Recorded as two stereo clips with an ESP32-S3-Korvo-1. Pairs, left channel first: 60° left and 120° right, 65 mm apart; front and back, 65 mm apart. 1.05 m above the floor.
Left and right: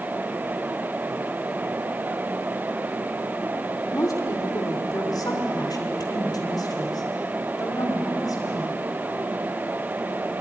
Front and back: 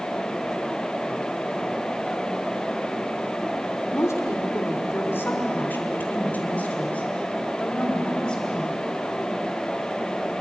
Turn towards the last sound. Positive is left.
turn(degrees=75)